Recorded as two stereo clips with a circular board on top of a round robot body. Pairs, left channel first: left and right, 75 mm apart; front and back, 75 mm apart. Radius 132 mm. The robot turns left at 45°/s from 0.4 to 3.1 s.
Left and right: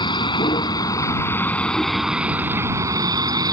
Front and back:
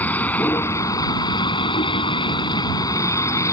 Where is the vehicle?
70° left; by 3.5 s 50° right.